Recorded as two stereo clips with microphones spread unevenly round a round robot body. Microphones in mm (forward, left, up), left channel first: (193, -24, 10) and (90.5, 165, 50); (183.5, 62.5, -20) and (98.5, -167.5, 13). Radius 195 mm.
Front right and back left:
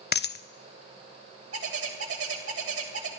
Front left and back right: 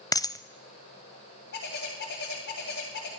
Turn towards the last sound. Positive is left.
turn(degrees=120)